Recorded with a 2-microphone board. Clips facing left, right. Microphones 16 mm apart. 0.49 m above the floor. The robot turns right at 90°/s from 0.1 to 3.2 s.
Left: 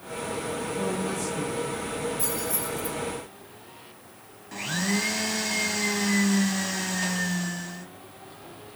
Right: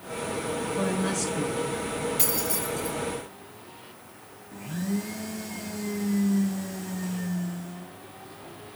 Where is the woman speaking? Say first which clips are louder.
Right 2 dB; 100° right, 7.5 m; by 1.7 s 10° right, 7.5 m.